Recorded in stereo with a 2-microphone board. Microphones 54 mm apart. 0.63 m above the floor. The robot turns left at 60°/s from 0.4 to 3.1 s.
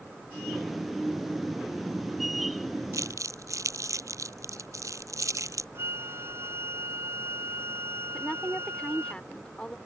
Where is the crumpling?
85° right; by 5.7 s 80° right.